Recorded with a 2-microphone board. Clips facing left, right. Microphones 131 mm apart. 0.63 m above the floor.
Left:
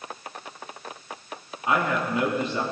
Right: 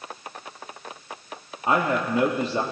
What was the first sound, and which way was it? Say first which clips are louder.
A man speaking: right 2 dB; 35° right (ahead or behind).